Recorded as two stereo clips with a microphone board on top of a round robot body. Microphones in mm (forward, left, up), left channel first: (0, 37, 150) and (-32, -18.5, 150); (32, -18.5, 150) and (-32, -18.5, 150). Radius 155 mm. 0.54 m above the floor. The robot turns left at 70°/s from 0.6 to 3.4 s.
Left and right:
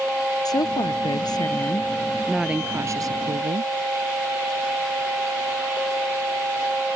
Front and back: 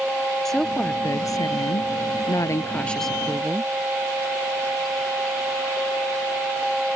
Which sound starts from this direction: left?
A woman speaking, at 0.5 s.